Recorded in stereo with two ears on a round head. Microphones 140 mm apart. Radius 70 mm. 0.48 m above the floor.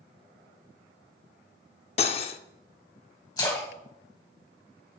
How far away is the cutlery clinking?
About 0.5 m.